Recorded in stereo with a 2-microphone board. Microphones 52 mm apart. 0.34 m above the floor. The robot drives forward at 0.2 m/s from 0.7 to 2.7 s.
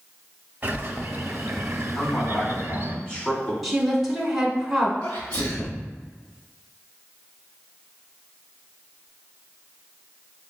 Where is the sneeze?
30° left (ahead or behind), 1.0 m.